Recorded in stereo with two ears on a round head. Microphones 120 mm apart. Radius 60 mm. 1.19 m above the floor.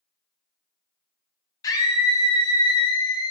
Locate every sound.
1.6 s a scream: 25° left (ahead or behind), 0.7 m; by 3.3 s 30° left (ahead or behind), 0.8 m